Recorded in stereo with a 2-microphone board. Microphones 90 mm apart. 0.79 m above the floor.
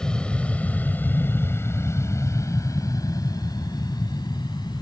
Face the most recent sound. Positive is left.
turn(degrees=50)  # may be behind; listen again after turning